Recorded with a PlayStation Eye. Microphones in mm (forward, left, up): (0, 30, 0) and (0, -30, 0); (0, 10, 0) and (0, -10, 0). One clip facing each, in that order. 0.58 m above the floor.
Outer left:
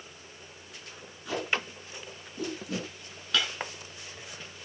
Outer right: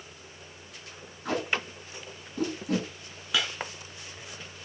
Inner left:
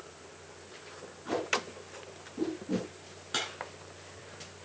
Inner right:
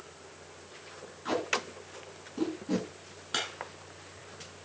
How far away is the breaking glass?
About 3 m.